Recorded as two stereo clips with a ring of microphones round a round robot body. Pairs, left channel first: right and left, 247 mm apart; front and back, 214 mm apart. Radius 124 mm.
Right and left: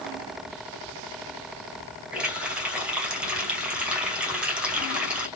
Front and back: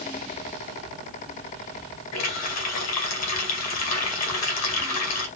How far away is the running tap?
About 2.5 m.